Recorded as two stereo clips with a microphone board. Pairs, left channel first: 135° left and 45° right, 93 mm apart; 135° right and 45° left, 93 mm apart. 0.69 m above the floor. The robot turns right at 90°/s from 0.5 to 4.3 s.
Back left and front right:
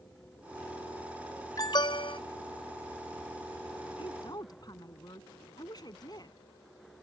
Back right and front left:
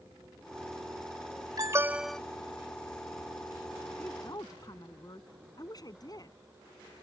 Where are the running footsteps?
I don't hear running footsteps.